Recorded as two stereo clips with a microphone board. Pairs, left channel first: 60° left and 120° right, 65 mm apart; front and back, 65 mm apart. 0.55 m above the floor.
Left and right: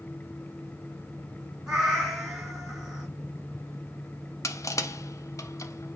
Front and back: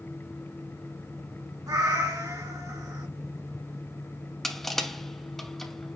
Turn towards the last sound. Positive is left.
turn(degrees=85)